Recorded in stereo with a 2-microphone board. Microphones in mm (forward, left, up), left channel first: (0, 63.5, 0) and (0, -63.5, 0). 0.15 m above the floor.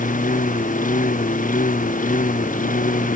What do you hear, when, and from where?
0.0 s a lawn mower: 80° left; by 3.2 s 85° left